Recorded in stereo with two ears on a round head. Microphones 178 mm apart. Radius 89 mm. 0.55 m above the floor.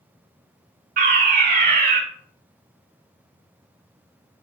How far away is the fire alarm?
About 3.5 m.